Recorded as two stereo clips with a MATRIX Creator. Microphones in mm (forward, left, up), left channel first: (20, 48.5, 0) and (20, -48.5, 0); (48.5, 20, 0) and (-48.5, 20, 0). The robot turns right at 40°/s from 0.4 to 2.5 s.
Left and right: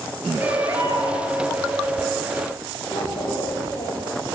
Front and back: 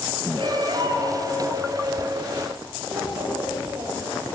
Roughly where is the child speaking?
Behind left.